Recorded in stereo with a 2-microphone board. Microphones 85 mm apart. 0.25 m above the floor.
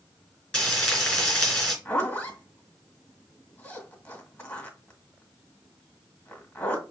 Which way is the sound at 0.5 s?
5° left (ahead or behind).